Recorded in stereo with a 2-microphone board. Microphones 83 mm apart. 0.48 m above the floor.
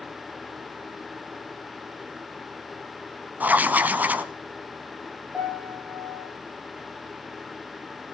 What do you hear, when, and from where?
3.4 s writing: 20° right (ahead or behind), 0.7 m
5.3 s a piano: 10° right (ahead or behind), 6.5 m